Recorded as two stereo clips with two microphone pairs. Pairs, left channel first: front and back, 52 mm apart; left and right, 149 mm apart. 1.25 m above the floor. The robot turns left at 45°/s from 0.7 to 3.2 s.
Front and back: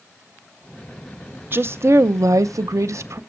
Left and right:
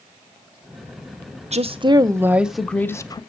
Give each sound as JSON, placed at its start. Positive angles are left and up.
{"t": 1.5, "sound": "a woman speaking", "azimuth_deg": -130, "distance_m": 0.6}